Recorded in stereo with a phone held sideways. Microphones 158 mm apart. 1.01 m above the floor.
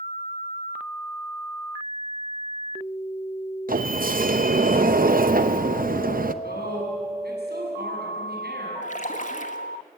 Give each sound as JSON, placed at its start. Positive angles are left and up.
{"t": 3.7, "sound": "a sliding door", "side_deg": -65, "distance_m": 0.8}
{"t": 6.4, "sound": "a woman speaking", "side_deg": -85, "distance_m": 7.5}
{"t": 8.8, "sound": "a splash", "side_deg": 50, "distance_m": 1.6}